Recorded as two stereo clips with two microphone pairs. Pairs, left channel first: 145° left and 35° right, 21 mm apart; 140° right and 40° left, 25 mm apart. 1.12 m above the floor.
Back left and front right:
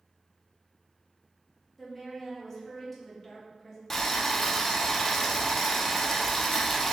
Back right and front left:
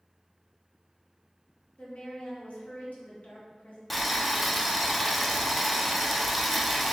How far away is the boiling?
About 0.6 m.